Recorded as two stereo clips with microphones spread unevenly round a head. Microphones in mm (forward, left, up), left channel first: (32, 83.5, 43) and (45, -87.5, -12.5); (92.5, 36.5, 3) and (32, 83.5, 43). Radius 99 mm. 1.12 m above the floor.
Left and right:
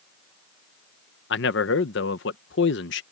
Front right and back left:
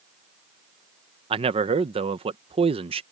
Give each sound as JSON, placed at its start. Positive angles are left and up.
{"t": 1.3, "sound": "a man speaking", "azimuth_deg": 135}